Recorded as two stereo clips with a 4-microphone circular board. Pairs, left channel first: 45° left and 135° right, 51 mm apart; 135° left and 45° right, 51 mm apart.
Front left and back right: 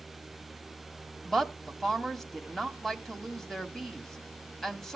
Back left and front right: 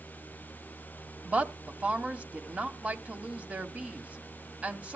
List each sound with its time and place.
1.2 s a woman speaking: 25° right, 1.4 m